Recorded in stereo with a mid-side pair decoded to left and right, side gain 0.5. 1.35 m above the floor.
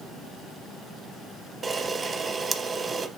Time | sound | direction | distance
1.6 | a camera shutter | 35° right | 0.9 m